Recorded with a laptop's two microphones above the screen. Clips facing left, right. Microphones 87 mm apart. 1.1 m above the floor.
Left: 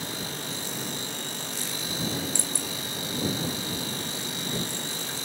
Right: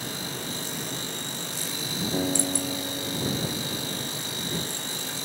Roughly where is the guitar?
Right.